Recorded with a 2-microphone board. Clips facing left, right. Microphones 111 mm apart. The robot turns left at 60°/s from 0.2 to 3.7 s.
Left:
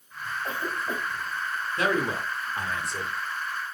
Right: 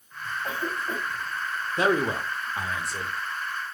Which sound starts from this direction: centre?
A cough, at 0.4 s.